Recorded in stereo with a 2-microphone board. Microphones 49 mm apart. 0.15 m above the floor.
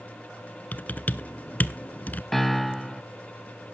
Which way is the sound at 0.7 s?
35° left (ahead or behind).